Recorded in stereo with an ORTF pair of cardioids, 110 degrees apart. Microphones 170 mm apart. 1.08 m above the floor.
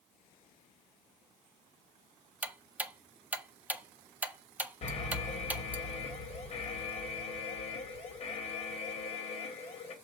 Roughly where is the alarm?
Ahead left.